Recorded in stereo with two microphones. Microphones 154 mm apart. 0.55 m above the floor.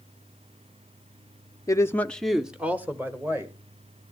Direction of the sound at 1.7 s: 20° left (ahead or behind).